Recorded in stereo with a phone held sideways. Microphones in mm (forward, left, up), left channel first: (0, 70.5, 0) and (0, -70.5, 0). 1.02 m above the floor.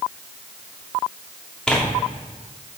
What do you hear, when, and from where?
1.7 s tearing paper: 5° left (ahead or behind), 1.8 m